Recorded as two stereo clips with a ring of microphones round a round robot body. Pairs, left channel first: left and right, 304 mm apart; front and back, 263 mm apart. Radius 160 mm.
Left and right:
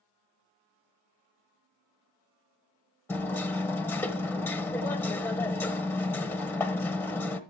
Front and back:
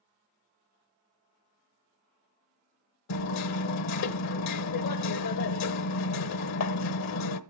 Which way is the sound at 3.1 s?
10° left.